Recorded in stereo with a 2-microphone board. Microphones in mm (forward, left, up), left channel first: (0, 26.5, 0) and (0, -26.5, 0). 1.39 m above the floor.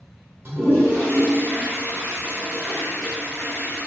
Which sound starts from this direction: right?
A toilet flushing, at 0.5 s.